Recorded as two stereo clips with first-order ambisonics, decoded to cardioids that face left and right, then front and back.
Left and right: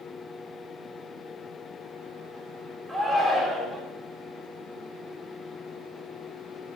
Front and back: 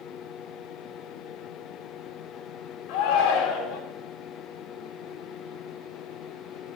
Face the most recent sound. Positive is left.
turn(degrees=-5)